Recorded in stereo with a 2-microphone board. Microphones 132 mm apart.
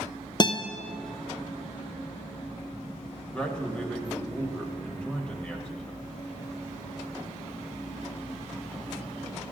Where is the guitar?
35° left (ahead or behind), 0.5 m.